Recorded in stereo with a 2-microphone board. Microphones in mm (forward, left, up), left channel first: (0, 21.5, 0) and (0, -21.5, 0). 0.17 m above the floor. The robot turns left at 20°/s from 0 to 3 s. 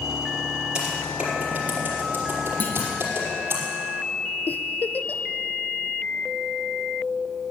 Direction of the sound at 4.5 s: 45° left (ahead or behind).